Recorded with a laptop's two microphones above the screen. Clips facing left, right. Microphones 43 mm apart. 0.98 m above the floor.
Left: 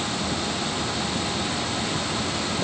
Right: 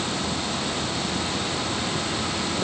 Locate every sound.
Only background noise.